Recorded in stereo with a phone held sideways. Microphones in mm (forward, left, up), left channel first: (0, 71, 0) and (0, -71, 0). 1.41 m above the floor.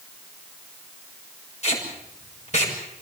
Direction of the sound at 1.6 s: 50° left (ahead or behind).